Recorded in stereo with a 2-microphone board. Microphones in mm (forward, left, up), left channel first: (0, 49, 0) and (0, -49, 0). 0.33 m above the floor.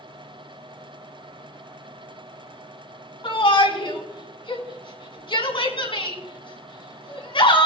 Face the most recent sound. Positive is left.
turn(degrees=60)  # may be behind; listen again after turning